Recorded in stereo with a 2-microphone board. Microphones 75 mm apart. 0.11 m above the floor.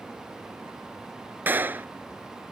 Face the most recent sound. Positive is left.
turn(degrees=-30)  # may be behind; listen again after turning